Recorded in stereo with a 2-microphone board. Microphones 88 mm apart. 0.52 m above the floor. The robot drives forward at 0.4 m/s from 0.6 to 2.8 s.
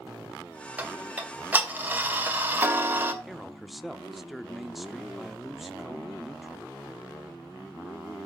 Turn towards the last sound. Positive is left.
turn(degrees=-5)  # may be behind; listen again after turning